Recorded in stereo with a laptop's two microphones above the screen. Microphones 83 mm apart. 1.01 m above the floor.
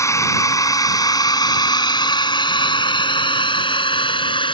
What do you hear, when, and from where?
0.0 s a drone: 35° left (ahead or behind); by 4.5 s 85° left